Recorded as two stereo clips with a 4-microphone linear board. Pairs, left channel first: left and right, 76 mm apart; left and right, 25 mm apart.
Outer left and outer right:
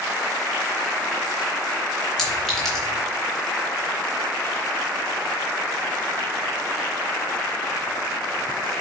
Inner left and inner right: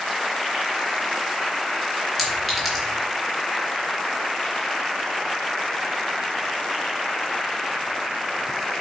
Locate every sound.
2.2 s a clink: 5° left (ahead or behind), 3 m